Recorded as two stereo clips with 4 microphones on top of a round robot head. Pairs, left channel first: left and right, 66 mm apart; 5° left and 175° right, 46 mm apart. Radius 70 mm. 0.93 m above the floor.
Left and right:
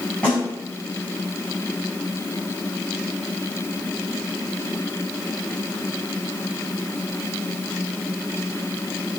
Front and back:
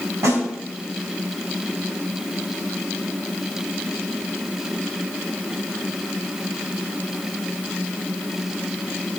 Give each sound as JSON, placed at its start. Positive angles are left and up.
{"t": 0.2, "sound": "a snare drum", "azimuth_deg": 170, "distance_m": 4.5}